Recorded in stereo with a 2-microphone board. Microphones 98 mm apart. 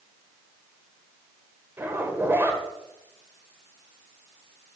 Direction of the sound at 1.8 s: 20° right (ahead or behind).